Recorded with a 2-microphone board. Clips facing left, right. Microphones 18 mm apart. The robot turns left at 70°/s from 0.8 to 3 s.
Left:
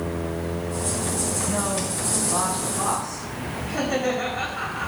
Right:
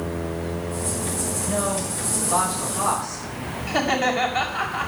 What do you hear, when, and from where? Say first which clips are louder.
1.4 s a man speaking: right 1 dB; 55° right, 6.5 m; by 3.2 s 165° right, 6.5 m
3.7 s laughter: right 3 dB; 60° right (ahead or behind), 6.5 m